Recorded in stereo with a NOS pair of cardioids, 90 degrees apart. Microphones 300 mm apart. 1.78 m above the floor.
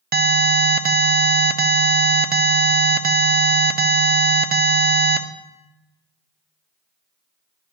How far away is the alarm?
About 0.5 m.